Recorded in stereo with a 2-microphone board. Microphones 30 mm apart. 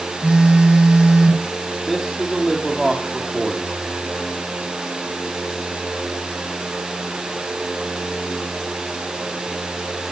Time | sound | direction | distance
0.2 | a phone buzzing | 30° right (ahead or behind) | 1.4 m
1.9 | a man speaking | centre (ahead or behind) | 2.5 m